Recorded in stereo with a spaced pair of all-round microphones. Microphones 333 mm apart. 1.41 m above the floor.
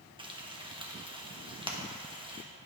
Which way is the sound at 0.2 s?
15° right (ahead or behind).